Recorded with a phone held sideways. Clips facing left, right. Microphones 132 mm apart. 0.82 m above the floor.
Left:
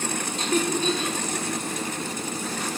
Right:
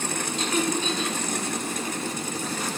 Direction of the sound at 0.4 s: 40° left (ahead or behind).